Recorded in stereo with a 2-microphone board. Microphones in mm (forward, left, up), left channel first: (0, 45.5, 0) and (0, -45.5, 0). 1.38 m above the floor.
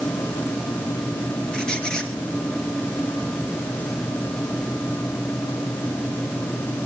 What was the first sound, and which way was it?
A squeak, 5° left (ahead or behind).